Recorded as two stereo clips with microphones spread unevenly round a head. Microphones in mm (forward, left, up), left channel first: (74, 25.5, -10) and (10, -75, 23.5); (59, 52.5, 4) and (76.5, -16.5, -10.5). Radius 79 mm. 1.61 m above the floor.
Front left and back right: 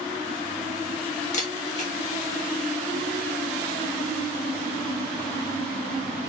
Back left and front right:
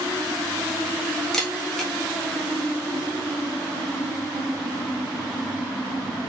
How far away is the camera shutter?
About 1.3 m.